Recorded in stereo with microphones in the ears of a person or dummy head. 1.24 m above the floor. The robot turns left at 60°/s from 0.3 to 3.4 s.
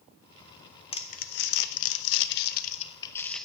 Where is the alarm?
I don't hear an alarm.